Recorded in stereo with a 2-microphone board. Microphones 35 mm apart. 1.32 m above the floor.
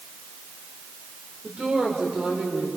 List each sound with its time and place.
1.4 s a woman speaking: 40° right (ahead or behind), 4 m